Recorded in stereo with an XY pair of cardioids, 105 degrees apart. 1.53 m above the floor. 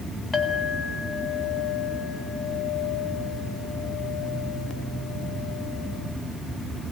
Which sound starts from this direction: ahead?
A clink, at 0.3 s.